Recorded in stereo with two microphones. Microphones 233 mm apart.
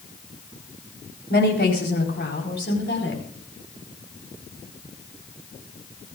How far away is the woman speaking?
About 4 m.